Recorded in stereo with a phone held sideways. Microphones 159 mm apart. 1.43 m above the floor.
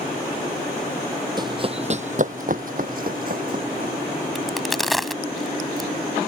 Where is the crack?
Centre (ahead or behind).